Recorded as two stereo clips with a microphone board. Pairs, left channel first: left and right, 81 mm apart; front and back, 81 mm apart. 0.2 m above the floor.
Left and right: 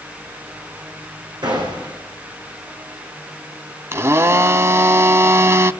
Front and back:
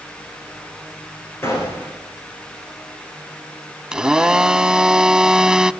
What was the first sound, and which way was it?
A gunshot, 60° right.